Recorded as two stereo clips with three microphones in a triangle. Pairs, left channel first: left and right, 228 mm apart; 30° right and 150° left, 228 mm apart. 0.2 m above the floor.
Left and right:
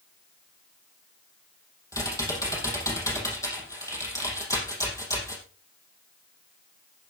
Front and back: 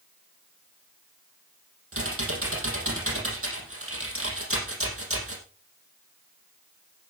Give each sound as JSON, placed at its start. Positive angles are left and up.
{"t": 1.9, "sound": "typing on a keyboard", "azimuth_deg": 165, "distance_m": 5.0}